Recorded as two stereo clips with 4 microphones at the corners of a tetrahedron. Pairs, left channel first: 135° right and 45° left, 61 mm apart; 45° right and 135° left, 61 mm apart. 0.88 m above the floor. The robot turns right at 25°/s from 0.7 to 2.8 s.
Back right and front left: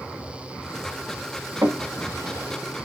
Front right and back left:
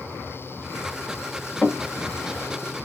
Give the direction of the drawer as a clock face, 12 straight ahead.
11 o'clock.